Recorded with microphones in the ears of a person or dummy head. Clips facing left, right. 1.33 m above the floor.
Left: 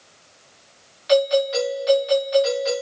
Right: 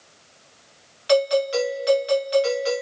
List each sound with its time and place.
1.1 s a doorbell: 40° right (ahead or behind), 5.5 m